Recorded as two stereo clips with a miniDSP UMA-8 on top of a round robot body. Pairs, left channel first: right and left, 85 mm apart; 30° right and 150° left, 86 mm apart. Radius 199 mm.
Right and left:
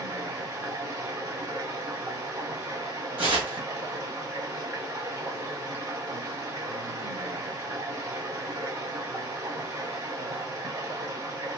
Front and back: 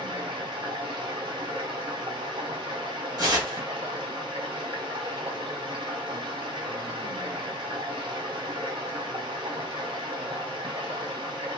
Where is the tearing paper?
105° left, 1.3 m.